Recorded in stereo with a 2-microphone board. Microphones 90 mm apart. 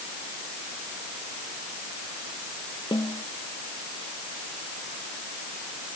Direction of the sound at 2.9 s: 60° left (ahead or behind).